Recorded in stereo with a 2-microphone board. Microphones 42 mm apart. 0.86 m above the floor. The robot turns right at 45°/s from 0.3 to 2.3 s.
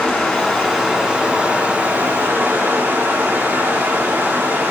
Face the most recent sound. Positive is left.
turn(degrees=-105)